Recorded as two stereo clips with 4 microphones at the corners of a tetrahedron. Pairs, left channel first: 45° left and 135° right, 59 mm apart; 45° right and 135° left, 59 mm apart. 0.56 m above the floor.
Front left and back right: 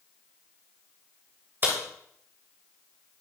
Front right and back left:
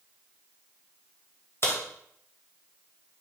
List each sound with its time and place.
1.6 s a crack: 85° right, 2.5 m